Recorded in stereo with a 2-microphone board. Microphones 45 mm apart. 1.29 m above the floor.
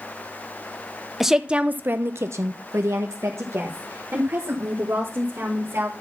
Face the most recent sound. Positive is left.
turn(degrees=-65)  # may be behind; listen again after turning